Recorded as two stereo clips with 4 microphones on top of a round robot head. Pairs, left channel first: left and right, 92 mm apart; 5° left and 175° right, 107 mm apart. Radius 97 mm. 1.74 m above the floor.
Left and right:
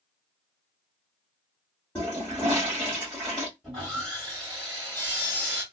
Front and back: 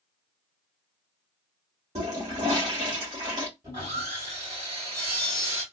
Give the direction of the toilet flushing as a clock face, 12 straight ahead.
6 o'clock.